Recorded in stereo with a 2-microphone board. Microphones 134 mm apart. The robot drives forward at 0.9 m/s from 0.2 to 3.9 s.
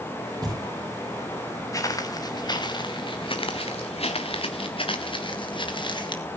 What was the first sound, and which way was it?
Knocking, 30° right (ahead or behind).